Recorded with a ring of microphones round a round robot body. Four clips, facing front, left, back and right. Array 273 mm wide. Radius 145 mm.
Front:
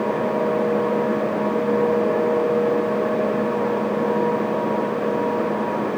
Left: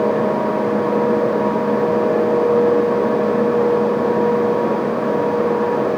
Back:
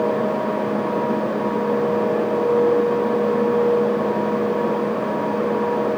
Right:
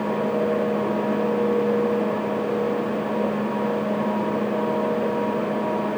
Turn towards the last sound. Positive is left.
No sound to turn to.